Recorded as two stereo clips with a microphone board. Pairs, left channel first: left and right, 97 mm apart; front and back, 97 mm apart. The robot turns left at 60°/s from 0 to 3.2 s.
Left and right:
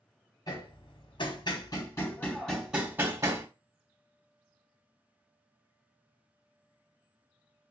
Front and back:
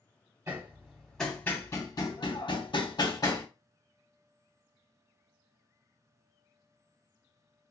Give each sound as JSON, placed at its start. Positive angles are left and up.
{"t": 0.5, "sound": "hammering", "azimuth_deg": 130, "distance_m": 0.9}